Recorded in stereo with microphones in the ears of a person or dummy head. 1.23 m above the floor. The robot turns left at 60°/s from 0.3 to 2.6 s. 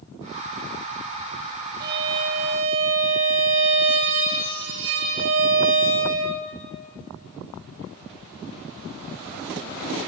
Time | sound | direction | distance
1.8 | a violin | 55° right | 2.5 m